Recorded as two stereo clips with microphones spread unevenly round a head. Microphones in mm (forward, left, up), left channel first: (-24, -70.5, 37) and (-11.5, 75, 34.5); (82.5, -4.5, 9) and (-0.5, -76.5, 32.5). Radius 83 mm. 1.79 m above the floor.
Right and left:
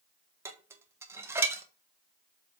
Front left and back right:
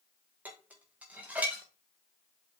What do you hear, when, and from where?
0.5 s dishes clattering: 155° left, 1.2 m